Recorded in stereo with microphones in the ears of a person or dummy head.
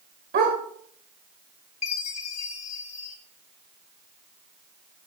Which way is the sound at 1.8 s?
35° left (ahead or behind).